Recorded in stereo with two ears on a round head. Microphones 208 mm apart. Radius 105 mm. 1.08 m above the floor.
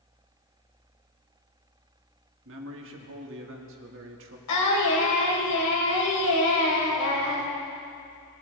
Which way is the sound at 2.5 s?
55° right (ahead or behind).